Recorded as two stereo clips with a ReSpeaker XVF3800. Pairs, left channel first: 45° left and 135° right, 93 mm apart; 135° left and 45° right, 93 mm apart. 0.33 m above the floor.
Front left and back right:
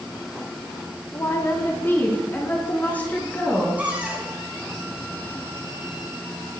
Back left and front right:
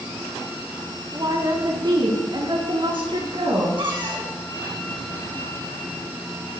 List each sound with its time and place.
1.1 s a woman speaking: 10° right, 3 m; by 3.7 s 30° right, 5.5 m
3.8 s a cupboard door: 60° right, 3.5 m